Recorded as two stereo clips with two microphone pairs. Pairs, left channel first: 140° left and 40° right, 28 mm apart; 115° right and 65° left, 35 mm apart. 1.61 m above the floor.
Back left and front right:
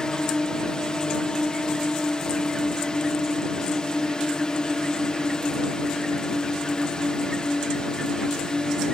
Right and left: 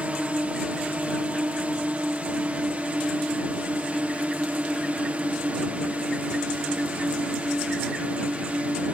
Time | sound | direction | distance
0.0 | a drone | 95° left | ?